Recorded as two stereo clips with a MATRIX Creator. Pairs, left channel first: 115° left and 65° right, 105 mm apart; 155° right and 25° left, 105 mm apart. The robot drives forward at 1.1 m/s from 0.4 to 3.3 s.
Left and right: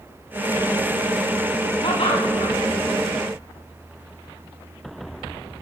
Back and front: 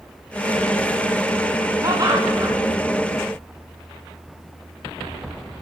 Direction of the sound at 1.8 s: 80° left.